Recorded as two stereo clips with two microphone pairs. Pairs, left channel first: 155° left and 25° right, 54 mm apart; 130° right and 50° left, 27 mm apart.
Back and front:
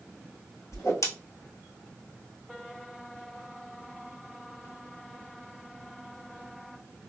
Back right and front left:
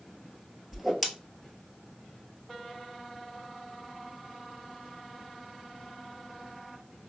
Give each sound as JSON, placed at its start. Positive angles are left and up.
{"t": 0.7, "sound": "a whoosh", "azimuth_deg": 140, "distance_m": 0.8}